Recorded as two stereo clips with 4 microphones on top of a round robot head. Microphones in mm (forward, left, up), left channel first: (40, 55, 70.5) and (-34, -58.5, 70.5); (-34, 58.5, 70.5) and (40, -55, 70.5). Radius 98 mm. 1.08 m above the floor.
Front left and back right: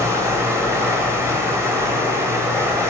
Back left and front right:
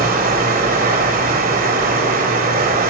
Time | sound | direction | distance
0.0 | running water | 55° right | 3.5 m